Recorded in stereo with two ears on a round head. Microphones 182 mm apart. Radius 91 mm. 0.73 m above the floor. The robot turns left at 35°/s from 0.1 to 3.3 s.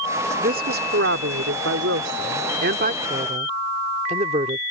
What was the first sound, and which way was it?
A woman speaking, 45° right.